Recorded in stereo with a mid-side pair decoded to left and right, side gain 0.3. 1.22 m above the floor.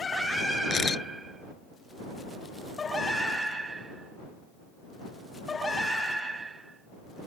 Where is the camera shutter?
55° left.